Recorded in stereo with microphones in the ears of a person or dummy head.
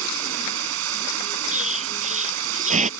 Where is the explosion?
35° right (ahead or behind).